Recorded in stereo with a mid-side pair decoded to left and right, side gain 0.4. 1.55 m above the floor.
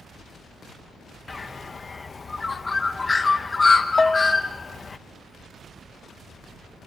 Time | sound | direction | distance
1.3 | a bird | 30° left | 1.8 m
4.0 | a bell | 25° left | 0.7 m